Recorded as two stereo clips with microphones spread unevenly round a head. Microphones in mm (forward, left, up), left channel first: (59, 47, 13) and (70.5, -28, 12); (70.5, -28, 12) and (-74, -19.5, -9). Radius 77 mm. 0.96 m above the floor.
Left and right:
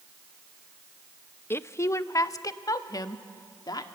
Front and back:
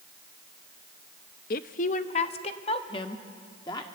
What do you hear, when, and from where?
1.5 s a woman speaking: 35° left, 0.7 m; by 3.9 s 65° left, 1.8 m